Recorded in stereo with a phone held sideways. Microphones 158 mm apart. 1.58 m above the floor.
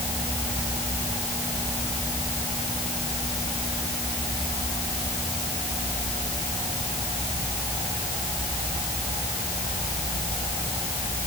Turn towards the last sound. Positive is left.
No sound to turn to.